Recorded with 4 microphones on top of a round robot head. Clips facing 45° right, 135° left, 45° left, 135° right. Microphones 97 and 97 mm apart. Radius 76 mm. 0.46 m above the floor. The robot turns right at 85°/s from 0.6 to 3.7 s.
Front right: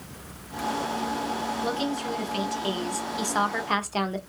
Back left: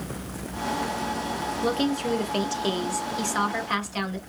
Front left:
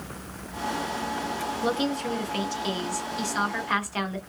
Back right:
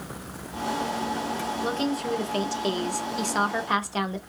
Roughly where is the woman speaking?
Left.